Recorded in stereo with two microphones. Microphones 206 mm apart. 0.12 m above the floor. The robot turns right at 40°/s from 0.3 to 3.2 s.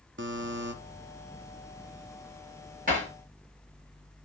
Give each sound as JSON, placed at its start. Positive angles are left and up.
{"t": 0.2, "sound": "a buzzer", "side_deg": -65, "distance_m": 1.1}
{"t": 2.9, "sound": "hammering", "side_deg": -45, "distance_m": 7.5}